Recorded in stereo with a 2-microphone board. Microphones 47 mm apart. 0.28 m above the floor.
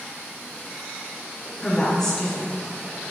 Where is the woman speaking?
10° left (ahead or behind), 3 m.